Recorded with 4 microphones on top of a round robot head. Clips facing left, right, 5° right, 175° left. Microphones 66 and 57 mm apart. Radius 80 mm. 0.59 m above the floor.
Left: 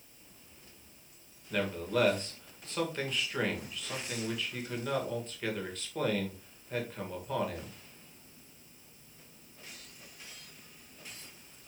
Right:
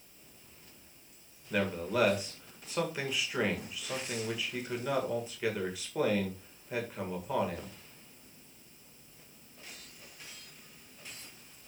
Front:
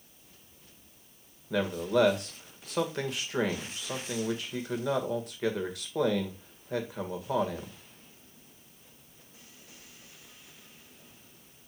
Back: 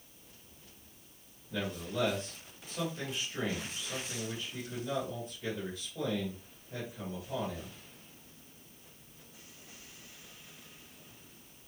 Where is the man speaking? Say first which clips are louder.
Even, front 9 dB; 10° right, 2 m.